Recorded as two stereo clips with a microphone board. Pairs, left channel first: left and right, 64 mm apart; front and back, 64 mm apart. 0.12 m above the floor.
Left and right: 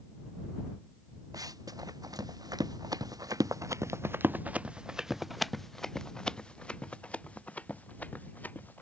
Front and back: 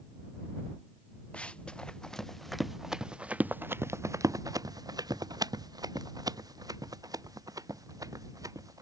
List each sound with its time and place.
1.3 s running footsteps: 70° right; by 8.8 s 155° left